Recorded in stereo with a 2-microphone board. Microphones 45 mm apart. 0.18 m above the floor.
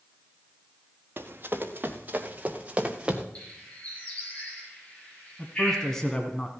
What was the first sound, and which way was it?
Running footsteps, 50° right (ahead or behind).